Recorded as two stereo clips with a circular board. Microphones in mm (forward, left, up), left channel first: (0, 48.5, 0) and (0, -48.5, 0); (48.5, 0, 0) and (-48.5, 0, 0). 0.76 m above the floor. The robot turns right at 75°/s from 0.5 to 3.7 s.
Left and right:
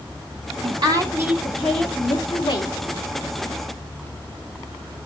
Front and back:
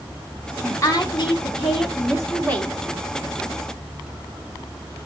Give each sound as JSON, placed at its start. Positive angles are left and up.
{"t": 0.6, "sound": "a woman speaking", "azimuth_deg": -70, "distance_m": 2.0}